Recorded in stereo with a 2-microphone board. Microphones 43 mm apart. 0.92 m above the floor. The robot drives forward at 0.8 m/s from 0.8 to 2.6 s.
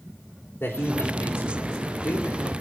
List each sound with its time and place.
0.6 s a man speaking: 75° left (ahead or behind), 3.5 m